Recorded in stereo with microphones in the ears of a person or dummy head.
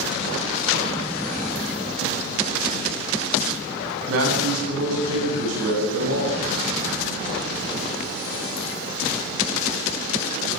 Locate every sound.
4.1 s a man speaking: 90° right, 9.5 m; by 6.4 s 80° right, 8.5 m